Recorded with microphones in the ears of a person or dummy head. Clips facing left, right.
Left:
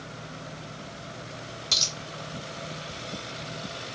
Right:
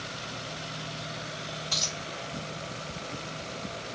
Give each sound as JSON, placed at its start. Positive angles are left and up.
{"t": 1.7, "sound": "a dropped coin", "side_deg": 35, "distance_m": 2.0}